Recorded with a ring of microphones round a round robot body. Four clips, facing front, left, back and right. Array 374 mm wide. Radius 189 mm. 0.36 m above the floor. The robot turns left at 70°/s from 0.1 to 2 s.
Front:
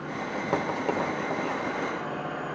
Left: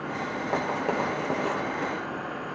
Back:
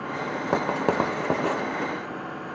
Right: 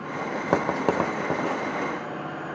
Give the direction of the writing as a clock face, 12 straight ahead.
4 o'clock.